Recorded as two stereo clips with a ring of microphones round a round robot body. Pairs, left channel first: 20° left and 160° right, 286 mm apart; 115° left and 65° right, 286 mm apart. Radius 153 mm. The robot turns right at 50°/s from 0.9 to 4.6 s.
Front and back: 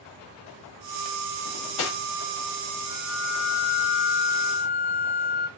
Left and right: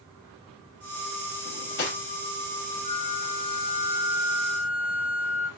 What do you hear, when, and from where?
1.4 s cutlery clinking: 40° left, 0.8 m; by 2.0 s 65° left, 0.8 m
2.8 s a flute: 45° right, 1.5 m; by 5.5 s 40° left, 1.5 m